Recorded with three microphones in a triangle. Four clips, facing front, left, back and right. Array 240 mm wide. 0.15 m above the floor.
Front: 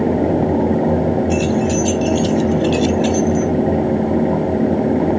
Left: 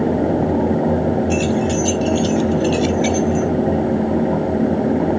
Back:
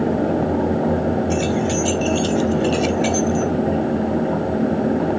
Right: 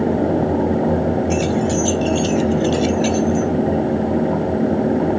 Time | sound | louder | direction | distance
1.3 | keys jangling | even, front 3 dB | 120° right | 1.7 m